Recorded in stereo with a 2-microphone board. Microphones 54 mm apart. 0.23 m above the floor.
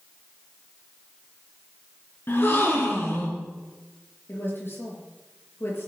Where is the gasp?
45° left (ahead or behind), 3 m.